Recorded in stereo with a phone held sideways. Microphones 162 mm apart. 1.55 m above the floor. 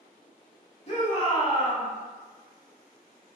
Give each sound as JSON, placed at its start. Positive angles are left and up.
{"t": 0.9, "sound": "a shout", "side_deg": 45, "distance_m": 1.1}